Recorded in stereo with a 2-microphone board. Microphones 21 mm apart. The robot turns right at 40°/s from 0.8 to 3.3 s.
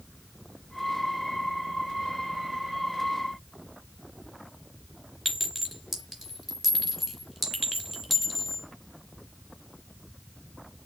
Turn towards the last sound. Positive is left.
turn(degrees=0)  # may be behind; listen again after turning